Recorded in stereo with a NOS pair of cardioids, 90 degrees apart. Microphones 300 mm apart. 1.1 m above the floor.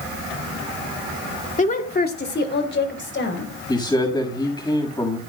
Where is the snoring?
I don't hear snoring.